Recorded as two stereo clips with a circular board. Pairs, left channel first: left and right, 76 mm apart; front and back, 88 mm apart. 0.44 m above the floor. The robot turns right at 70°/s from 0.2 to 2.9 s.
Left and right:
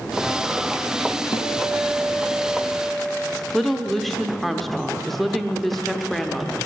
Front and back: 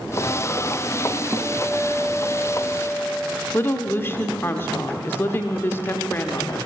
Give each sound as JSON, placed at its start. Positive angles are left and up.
{"t": 1.3, "sound": "a guitar", "azimuth_deg": 85, "distance_m": 0.8}
{"t": 3.5, "sound": "a woman speaking", "azimuth_deg": 5, "distance_m": 0.7}